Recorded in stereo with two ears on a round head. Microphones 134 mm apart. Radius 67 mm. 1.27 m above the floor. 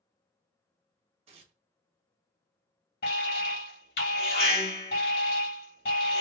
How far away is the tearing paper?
About 1.0 m.